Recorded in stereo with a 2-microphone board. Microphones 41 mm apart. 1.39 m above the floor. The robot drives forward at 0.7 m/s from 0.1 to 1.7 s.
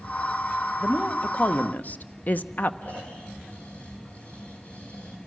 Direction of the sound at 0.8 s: 25° left (ahead or behind).